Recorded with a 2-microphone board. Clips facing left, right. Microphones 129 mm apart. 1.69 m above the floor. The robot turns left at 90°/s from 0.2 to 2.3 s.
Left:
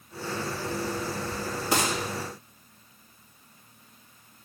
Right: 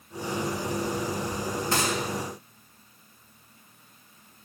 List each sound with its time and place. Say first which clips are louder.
1.7 s a gunshot: left 2 dB; 15° left (ahead or behind), 2 m; by 2.0 s 40° left (ahead or behind), 2 m